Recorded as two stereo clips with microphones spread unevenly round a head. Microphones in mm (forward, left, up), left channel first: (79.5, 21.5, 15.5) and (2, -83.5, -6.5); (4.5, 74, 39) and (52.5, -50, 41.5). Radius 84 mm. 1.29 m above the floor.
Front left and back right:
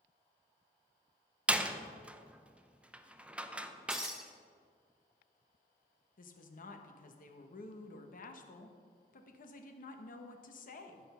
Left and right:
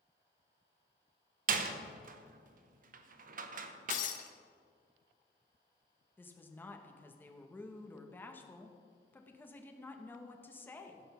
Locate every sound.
1.5 s a door slam: 45° right, 0.7 m
3.9 s breaking glass: 140° left, 0.5 m
6.2 s a woman speaking: 35° left, 1.2 m